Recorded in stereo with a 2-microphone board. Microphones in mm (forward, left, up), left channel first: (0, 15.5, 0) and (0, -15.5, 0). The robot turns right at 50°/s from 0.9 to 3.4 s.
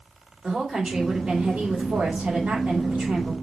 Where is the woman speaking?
165° right, 3 m; by 3.3 s 40° right, 3 m.